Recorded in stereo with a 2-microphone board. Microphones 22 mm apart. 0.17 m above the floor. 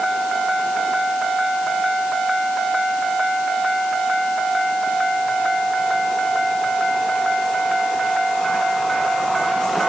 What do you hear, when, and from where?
Only background noise.